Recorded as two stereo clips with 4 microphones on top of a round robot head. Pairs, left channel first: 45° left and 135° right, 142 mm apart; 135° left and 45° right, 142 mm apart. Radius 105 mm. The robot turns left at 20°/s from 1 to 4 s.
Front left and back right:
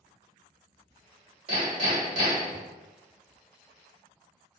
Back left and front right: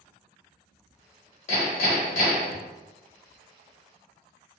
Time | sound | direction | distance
1.5 | hammering | 175° left | 1.5 m